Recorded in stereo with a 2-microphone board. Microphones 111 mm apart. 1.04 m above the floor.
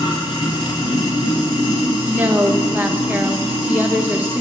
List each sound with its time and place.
0.0 s running water: 45° left (ahead or behind), 2.5 m
2.1 s a woman speaking: 15° right (ahead or behind), 1.2 m